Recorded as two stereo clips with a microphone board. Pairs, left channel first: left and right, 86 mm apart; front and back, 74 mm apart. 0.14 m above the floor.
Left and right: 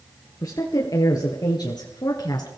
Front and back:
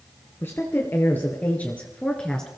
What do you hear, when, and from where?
0.4 s a woman speaking: 55° left, 2.5 m; by 2.5 s 80° left, 1.7 m